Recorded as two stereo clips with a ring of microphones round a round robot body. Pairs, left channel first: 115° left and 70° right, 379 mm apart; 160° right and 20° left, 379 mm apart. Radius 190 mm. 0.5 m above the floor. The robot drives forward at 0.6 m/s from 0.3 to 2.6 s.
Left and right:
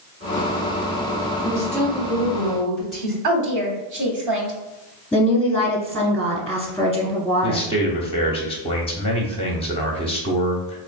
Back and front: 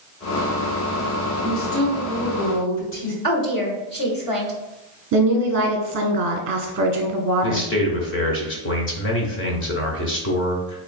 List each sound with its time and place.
1.4 s a woman speaking: 145° right, 1.9 m; by 3.1 s 155° right, 2.5 m
3.2 s a woman speaking: 100° right, 1.3 m
5.1 s a woman speaking: 30° left, 0.9 m
7.4 s a man speaking: 175° left, 0.7 m